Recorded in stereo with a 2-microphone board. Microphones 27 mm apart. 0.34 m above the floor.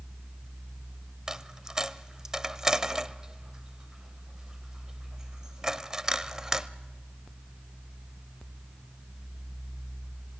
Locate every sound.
1.3 s a dropped coin: 20° right (ahead or behind), 0.7 m